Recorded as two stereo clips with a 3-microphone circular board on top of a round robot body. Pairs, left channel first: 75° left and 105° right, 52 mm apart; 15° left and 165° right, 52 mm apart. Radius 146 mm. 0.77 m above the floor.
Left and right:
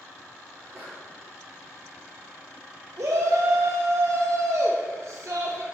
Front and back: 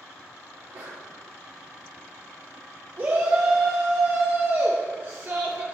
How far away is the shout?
About 0.9 m.